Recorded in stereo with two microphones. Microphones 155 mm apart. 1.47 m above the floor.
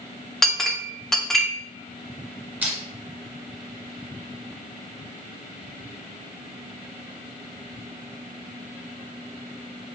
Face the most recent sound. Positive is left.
turn(degrees=-10)  # may be behind; listen again after turning